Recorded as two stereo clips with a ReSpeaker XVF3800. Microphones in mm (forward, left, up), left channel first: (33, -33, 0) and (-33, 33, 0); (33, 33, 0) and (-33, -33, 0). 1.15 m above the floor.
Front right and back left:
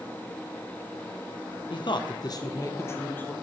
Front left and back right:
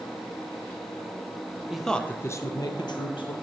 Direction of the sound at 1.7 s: 50° right.